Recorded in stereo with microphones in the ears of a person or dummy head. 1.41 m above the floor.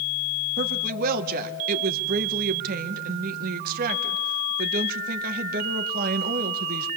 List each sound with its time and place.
0.6 s a woman speaking: 50° right (ahead or behind), 1.7 m